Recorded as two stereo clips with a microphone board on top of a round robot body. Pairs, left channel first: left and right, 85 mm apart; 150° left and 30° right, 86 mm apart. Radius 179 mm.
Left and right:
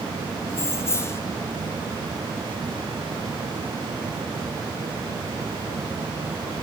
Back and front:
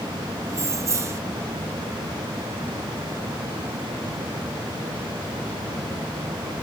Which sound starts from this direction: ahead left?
Keys jangling, at 0.5 s.